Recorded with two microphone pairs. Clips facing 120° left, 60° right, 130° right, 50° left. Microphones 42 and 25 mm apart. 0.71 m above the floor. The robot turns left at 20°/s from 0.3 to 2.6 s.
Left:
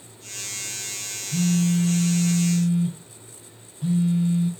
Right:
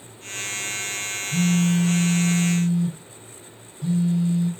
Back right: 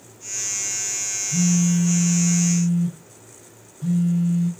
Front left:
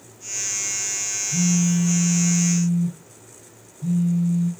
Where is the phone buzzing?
140° right, 3.5 m; by 4.5 s 165° right, 3.5 m.